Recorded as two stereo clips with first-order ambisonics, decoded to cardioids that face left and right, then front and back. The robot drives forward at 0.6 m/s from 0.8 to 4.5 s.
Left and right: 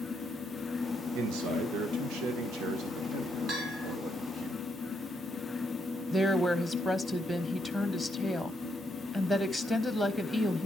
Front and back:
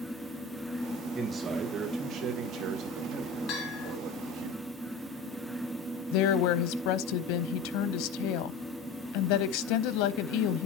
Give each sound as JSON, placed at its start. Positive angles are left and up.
{"t": 1.1, "sound": "a man speaking", "azimuth_deg": -105, "distance_m": 1.4}
{"t": 3.5, "sound": "a bell", "azimuth_deg": -45, "distance_m": 3.5}
{"t": 6.1, "sound": "a woman speaking", "azimuth_deg": 0, "distance_m": 0.8}